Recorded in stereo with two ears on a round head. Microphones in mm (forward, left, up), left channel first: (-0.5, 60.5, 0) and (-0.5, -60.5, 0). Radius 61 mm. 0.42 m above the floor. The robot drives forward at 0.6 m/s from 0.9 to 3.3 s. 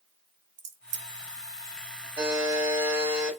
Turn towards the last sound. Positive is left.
turn(degrees=-15)  # may be behind; listen again after turning